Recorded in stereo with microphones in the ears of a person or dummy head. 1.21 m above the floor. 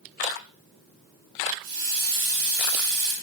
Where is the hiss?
75° right (ahead or behind), 5 m.